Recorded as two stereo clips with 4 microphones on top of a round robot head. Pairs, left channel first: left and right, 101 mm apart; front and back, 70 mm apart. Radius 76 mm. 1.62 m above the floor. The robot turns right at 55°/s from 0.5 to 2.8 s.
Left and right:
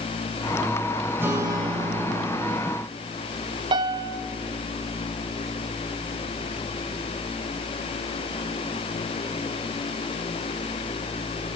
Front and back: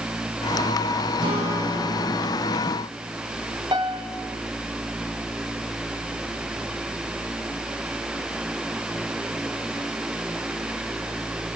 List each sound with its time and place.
1.2 s a guitar: 160° right, 6.5 m; by 2.6 s 80° right, 6.5 m
3.7 s a piano: 130° right, 1.5 m